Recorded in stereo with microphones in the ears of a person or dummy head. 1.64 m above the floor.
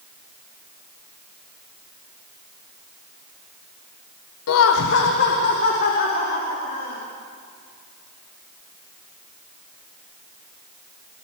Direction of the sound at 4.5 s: 80° left.